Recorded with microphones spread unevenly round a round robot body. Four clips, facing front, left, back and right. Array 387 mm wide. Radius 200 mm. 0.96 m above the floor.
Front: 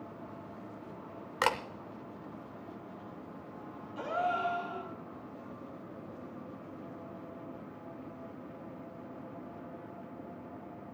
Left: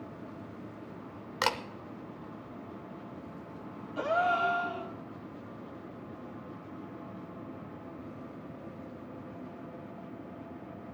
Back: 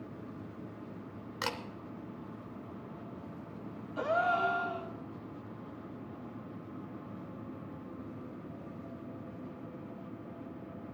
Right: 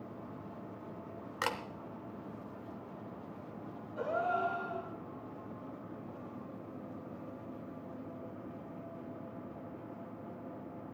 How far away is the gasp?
About 2 m.